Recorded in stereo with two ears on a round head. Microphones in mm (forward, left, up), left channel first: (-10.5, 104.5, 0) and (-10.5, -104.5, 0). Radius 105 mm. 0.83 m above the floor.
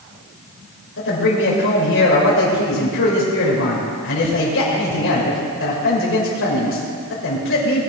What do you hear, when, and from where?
1.0 s a man speaking: 60° left (ahead or behind), 2.5 m